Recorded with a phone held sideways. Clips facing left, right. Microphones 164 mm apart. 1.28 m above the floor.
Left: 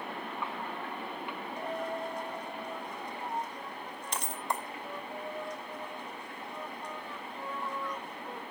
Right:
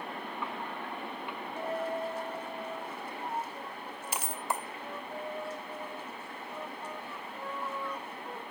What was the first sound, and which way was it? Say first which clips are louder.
A dropped coin: right 3 dB; 5° right (ahead or behind).